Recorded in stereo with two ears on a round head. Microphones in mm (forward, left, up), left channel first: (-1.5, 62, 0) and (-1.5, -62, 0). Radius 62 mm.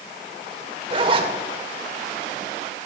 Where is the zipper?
40° right (ahead or behind), 1.5 m.